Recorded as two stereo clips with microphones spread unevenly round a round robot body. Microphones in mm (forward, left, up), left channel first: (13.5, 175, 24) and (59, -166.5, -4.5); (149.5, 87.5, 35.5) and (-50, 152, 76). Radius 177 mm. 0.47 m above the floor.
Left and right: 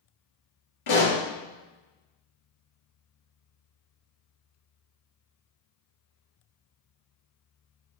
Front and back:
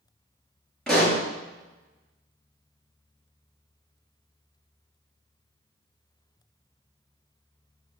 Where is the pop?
70° left, 3.5 m.